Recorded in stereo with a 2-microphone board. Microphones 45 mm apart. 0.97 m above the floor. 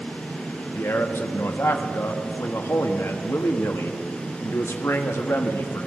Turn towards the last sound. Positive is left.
turn(degrees=75)  # may be behind; listen again after turning